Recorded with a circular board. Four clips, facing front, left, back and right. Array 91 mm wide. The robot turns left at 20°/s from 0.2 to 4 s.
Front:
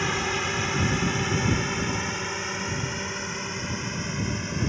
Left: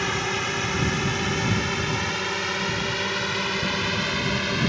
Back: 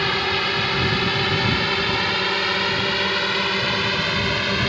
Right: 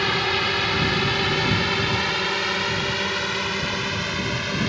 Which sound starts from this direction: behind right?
A drone, at 0.0 s.